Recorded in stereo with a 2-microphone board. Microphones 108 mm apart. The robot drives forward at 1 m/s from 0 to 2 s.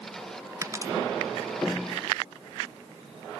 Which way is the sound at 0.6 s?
25° right (ahead or behind).